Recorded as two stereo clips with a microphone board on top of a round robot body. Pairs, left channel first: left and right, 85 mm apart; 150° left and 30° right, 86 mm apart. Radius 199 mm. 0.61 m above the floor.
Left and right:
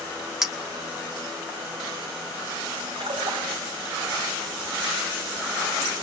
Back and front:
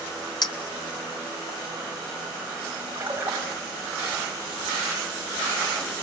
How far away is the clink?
About 1.8 m.